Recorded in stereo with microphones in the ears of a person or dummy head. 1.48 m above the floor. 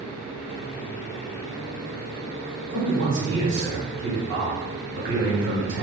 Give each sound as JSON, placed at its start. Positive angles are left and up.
{"t": 2.7, "sound": "a man speaking", "side_deg": -80, "distance_m": 2.0}